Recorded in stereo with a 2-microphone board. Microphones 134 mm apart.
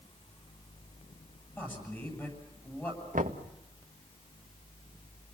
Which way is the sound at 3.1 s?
90° right.